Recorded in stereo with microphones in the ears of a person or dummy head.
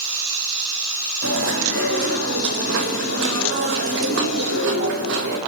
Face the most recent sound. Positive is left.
turn(degrees=-75)  # may be behind; listen again after turning